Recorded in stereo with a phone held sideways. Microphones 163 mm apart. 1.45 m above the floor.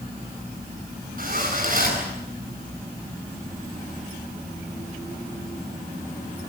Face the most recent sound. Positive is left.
turn(degrees=-55)  # may be behind; listen again after turning